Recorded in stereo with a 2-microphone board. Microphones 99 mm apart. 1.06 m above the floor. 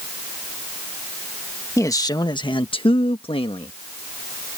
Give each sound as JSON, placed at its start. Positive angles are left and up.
{"t": 1.8, "sound": "a man speaking", "side_deg": 30}